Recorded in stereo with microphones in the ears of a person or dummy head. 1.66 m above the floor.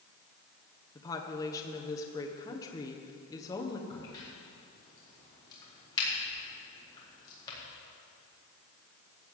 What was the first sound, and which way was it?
A woman speaking, 15° left (ahead or behind).